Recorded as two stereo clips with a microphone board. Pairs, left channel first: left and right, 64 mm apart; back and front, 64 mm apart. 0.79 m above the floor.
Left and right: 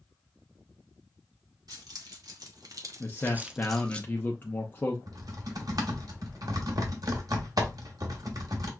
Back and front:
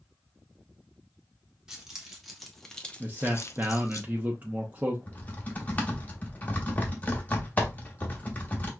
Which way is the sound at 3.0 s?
50° left.